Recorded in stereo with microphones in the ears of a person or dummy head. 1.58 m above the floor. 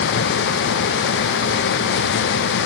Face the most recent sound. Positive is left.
No sound to turn to.